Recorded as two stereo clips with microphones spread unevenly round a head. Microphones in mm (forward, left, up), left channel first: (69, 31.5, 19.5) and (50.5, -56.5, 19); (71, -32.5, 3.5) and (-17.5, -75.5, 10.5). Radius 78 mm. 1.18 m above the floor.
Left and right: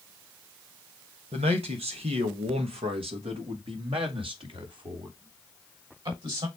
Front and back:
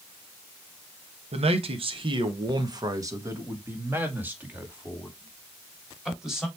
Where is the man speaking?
135° right, 1.4 m; by 6.5 s 70° right, 3.5 m.